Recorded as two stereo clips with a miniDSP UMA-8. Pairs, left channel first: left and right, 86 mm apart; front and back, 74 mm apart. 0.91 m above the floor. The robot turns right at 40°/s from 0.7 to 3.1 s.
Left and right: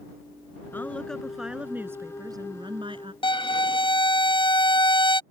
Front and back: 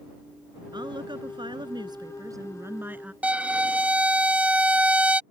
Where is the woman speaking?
155° left; by 3.1 s 110° right.